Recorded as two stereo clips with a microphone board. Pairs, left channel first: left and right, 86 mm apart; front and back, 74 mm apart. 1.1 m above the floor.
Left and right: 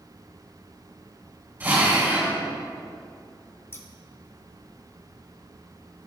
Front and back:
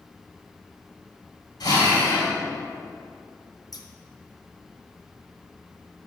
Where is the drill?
25° right, 2.5 m.